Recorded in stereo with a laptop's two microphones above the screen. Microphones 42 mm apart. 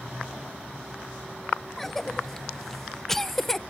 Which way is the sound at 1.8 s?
10° left (ahead or behind).